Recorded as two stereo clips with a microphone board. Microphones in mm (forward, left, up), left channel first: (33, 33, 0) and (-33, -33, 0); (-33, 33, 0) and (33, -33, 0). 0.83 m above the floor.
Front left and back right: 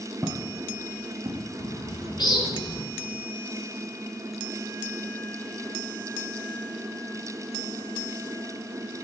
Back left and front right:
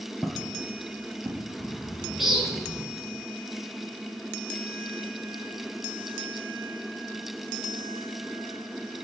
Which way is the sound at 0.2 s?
130° right.